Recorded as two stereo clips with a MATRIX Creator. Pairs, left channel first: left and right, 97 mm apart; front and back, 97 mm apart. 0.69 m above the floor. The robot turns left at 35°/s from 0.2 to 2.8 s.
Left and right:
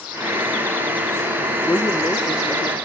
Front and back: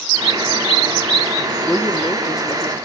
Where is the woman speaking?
65° left, 1.3 m; by 2.7 s 25° left, 1.3 m.